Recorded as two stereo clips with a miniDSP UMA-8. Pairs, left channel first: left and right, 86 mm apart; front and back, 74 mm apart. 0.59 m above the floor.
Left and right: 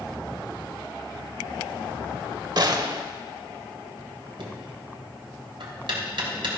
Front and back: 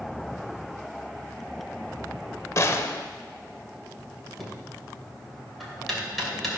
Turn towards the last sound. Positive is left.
turn(degrees=-90)